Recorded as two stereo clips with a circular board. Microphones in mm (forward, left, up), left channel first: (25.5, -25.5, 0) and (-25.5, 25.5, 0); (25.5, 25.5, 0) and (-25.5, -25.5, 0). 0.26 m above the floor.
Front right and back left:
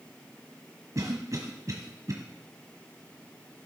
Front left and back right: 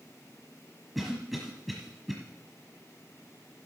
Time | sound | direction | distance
0.9 | a cough | 135° left | 1.5 m